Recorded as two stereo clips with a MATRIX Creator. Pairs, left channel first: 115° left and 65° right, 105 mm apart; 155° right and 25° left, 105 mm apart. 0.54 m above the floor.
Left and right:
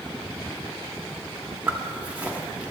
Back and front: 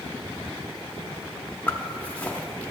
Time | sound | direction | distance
1.7 | a zipper | 115° right | 0.8 m